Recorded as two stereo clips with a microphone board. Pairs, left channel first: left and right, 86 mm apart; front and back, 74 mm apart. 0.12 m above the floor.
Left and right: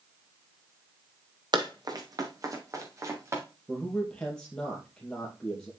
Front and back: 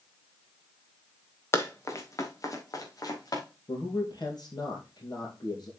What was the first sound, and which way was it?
Running footsteps, 55° right.